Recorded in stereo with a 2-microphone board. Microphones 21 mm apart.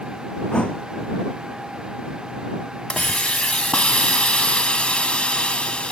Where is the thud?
85° left.